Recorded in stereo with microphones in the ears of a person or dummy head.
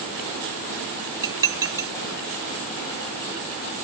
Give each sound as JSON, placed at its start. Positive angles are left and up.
{"t": 1.2, "sound": "dishes clattering", "side_deg": -15, "distance_m": 0.5}